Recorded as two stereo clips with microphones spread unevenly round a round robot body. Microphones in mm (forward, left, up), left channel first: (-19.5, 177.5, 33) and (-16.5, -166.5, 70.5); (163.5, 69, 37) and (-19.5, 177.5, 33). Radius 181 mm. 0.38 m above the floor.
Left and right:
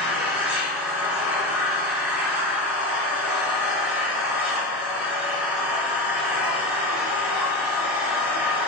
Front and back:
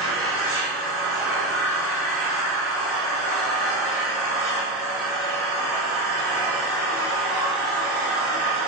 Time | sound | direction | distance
0.0 | an engine running | 175° right | 1.4 m